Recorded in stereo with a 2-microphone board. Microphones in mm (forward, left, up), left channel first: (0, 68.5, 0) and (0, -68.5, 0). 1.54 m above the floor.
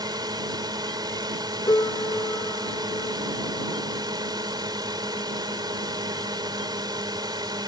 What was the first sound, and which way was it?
A drone, 30° right (ahead or behind).